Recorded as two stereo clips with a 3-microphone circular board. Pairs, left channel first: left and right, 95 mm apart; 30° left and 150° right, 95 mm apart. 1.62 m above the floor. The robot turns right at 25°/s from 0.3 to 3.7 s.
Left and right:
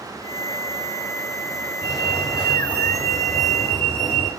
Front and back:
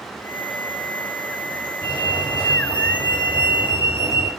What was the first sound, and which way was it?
A fire alarm, 20° right.